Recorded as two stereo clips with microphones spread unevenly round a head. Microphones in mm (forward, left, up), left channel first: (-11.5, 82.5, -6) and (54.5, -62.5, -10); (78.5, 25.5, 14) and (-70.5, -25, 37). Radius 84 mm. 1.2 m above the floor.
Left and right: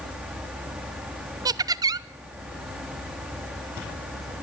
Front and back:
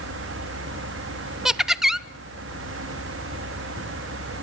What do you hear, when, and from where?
0.0 s a fan: 150° right, 2 m
1.4 s laughter: 55° right, 0.6 m